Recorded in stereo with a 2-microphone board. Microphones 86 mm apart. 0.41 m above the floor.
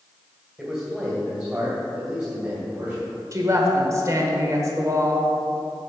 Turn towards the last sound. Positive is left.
turn(degrees=-40)  # may be behind; listen again after turning